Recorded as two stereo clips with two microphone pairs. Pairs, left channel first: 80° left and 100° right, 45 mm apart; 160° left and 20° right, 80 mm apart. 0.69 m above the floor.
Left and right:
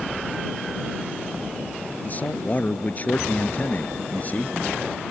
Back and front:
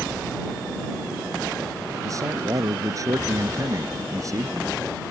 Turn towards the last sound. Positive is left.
turn(degrees=30)